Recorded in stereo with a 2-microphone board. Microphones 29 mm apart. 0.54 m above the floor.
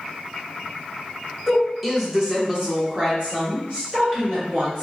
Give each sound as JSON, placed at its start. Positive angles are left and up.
{"t": 1.5, "sound": "a woman speaking", "side_deg": 5, "distance_m": 1.1}